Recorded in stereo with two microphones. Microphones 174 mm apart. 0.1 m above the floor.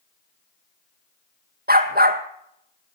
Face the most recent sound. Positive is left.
turn(degrees=-70)  # may be behind; listen again after turning